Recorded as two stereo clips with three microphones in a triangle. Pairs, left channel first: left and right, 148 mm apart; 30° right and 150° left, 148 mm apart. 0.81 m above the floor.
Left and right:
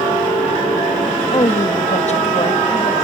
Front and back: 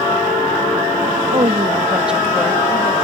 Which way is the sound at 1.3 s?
125° left.